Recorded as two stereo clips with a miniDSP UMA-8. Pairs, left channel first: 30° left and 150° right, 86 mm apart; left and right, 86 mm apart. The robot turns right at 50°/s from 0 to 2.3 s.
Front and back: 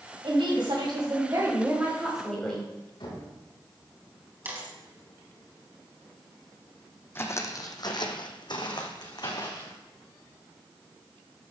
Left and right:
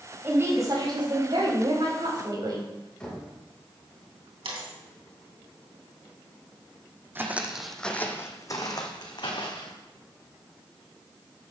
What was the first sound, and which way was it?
A woman speaking, 155° right.